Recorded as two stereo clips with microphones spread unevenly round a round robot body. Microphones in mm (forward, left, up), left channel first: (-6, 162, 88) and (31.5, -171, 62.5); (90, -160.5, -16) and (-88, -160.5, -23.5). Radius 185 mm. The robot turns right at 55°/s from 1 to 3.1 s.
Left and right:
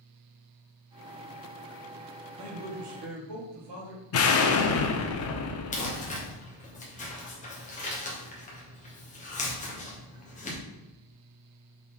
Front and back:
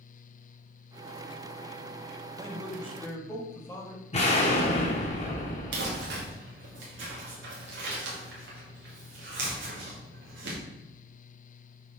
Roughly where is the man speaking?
Right.